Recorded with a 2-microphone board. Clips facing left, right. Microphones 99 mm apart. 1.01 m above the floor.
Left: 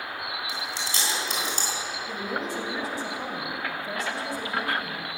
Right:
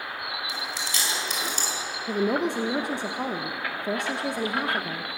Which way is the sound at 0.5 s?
30° left (ahead or behind).